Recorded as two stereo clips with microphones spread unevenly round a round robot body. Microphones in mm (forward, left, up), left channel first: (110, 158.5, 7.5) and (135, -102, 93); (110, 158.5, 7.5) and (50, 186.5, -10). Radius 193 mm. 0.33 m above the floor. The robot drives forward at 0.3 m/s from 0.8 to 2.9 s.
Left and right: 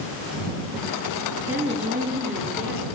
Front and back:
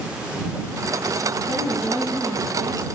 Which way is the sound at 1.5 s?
170° right.